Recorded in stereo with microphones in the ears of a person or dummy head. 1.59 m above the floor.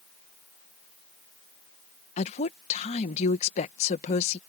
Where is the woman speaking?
40° left (ahead or behind).